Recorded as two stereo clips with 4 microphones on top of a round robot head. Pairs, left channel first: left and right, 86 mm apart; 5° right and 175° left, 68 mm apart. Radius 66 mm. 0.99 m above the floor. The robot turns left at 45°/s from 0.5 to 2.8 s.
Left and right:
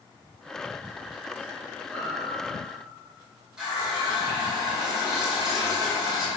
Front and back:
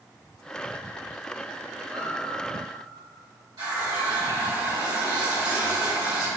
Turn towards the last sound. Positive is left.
turn(degrees=-170)